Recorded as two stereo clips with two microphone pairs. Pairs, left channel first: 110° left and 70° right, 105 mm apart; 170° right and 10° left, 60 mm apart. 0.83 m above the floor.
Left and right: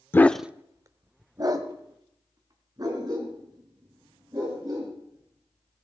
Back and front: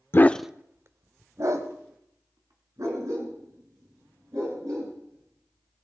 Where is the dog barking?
165° left, 0.5 m; by 5.8 s 20° right, 7 m.